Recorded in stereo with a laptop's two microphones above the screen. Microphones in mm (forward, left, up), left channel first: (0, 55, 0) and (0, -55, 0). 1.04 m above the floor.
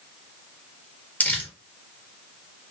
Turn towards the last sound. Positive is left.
turn(degrees=15)  # may be behind; listen again after turning